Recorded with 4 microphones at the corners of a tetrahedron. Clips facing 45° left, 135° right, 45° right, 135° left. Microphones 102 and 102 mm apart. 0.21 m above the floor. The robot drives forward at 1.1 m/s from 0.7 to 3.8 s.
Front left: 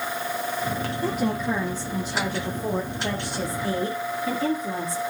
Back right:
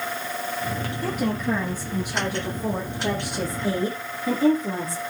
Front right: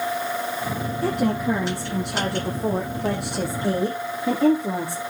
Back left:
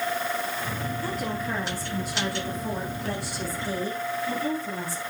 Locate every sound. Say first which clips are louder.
1.0 s a woman speaking: even, front right 11 dB; 35° right, 7 m; by 5.0 s 55° right, 4.5 m